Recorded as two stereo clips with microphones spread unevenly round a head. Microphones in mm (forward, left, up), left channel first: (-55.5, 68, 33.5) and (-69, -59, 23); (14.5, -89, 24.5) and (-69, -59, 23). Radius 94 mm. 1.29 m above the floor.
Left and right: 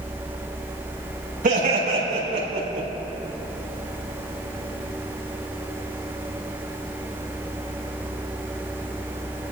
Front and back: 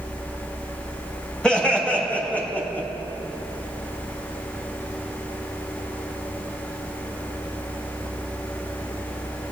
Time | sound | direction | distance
1.4 | laughter | 100° right | 7 m